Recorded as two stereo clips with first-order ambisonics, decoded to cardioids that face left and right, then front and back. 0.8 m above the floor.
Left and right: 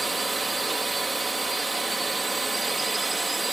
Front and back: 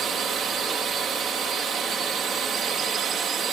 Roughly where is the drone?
Behind.